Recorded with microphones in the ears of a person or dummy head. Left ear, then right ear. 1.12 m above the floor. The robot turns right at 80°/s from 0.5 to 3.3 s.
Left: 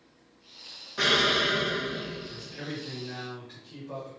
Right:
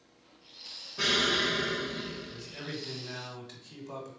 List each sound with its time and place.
1.0 s an explosion: 125° left, 1.5 m; by 2.6 s 105° right, 1.5 m
2.3 s a man speaking: straight behind, 2.5 m; by 4.1 s 100° right, 2.5 m